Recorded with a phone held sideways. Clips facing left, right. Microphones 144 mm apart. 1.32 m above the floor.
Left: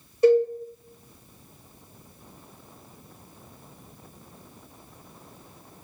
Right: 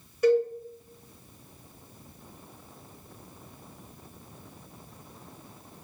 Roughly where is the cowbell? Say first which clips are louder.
Left 4 dB; left.